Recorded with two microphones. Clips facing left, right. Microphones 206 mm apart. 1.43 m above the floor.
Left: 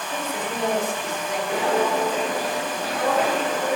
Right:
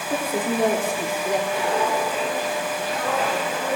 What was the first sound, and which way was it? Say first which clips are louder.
A woman speaking: right 6 dB; 45° right (ahead or behind).